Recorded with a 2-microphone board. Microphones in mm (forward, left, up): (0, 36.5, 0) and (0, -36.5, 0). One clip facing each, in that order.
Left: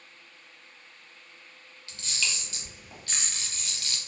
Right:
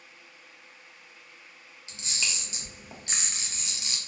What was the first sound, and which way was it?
A camera shutter, 20° right (ahead or behind).